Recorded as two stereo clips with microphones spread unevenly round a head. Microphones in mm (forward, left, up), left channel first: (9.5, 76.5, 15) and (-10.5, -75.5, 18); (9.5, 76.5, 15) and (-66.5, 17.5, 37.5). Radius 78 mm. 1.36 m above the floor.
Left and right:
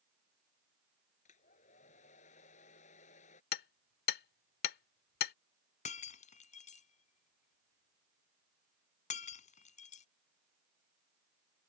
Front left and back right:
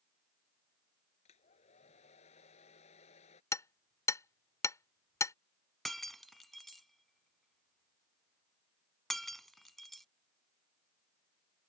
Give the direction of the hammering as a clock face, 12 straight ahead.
9 o'clock.